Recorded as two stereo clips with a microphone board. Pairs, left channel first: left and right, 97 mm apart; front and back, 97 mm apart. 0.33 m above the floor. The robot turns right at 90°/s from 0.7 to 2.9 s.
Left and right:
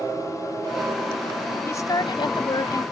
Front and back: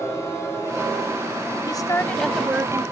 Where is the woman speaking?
30° left; by 2.8 s 135° left.